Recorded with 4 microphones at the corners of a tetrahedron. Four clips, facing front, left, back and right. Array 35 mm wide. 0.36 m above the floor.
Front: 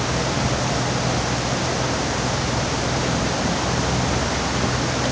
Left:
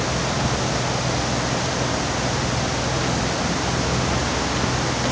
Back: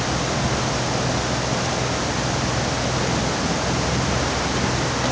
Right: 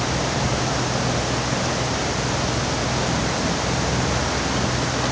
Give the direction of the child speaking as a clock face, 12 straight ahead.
I don't hear a child speaking.